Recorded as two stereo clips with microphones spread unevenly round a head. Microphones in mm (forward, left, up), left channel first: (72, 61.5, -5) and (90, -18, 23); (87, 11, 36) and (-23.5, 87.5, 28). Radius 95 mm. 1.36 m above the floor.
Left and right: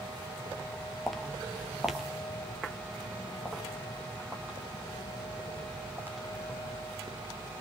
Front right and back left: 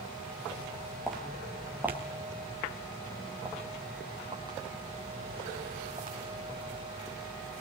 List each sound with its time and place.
1.1 s footsteps: 115° right, 1.4 m; by 6.2 s 145° right, 4 m